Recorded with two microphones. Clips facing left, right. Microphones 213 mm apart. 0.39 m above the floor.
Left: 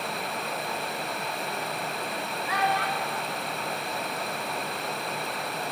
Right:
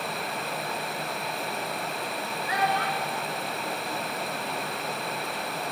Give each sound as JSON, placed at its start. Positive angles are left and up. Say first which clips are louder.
{"t": 2.5, "sound": "a child speaking", "louder": "even", "side_deg": -25, "distance_m": 0.7}